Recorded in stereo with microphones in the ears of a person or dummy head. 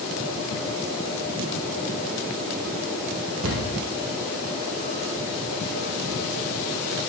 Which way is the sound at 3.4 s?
80° right.